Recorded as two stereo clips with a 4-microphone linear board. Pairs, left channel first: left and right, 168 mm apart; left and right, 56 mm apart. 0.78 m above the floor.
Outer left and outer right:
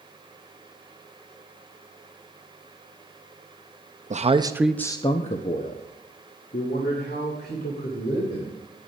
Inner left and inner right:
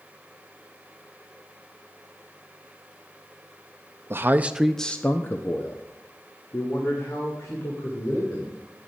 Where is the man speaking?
40° right (ahead or behind), 0.6 m; by 8.6 s 65° left (ahead or behind), 3 m.